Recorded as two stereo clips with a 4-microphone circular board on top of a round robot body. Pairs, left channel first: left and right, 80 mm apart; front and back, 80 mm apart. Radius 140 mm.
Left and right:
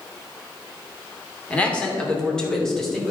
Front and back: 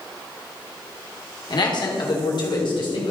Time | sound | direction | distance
1.5 | a man speaking | 15° left | 2.5 m